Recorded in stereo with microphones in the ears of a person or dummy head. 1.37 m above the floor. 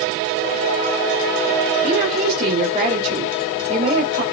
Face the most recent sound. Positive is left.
turn(degrees=-35)  # may be behind; listen again after turning